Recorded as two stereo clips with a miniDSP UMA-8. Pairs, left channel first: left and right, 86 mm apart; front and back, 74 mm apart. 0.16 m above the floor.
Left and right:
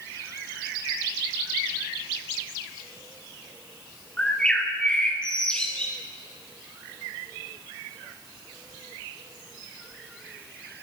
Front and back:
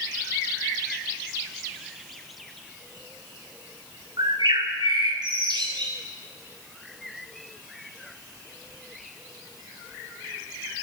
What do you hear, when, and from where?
4.2 s a bird: 170° left, 3.5 m